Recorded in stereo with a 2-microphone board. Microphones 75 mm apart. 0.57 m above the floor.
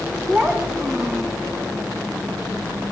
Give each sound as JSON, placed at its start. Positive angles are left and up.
{"t": 0.3, "sound": "a child speaking", "side_deg": -15, "distance_m": 2.5}